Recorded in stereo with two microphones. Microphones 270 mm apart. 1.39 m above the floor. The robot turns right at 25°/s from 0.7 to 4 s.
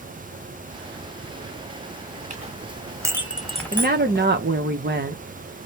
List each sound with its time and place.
2.3 s a clink: 30° right (ahead or behind), 0.8 m; by 4.3 s 15° left (ahead or behind), 0.8 m
3.7 s a woman speaking: 35° right (ahead or behind), 0.7 m; by 5.2 s 40° right (ahead or behind), 0.7 m